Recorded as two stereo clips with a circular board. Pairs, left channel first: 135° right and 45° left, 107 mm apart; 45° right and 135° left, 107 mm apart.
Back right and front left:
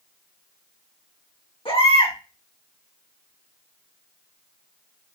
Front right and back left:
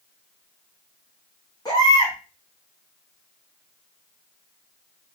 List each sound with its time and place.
1.6 s a baby crying: 100° right, 4 m